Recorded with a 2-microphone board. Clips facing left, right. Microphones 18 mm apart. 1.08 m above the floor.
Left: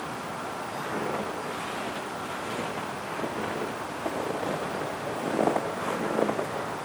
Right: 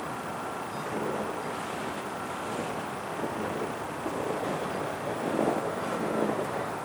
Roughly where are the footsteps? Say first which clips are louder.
Left 1 dB; left.